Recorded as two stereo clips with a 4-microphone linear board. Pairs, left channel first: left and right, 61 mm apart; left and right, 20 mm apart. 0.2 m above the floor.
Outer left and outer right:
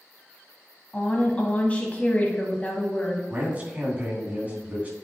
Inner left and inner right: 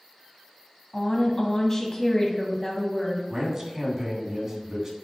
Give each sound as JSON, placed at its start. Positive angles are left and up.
{"t": 0.9, "sound": "a woman speaking", "side_deg": 25, "distance_m": 1.0}
{"t": 3.3, "sound": "a man speaking", "side_deg": -25, "distance_m": 2.0}